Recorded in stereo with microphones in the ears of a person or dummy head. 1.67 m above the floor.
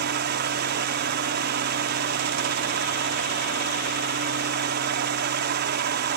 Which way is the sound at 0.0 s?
50° right (ahead or behind).